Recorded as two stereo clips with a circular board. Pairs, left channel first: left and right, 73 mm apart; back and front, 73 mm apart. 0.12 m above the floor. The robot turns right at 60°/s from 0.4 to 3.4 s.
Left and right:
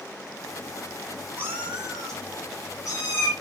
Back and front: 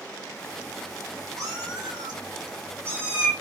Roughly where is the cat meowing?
Ahead right.